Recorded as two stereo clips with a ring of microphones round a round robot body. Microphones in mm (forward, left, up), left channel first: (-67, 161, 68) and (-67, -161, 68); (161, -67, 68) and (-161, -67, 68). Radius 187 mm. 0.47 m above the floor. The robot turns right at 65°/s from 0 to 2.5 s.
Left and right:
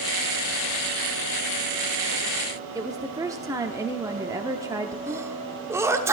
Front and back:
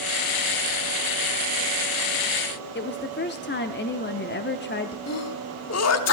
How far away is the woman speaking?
About 0.8 m.